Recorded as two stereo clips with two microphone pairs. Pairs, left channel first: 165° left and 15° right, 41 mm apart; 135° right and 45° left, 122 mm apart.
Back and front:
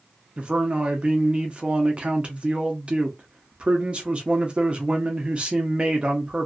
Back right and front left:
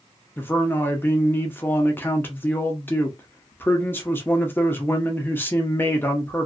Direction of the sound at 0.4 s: 65° right.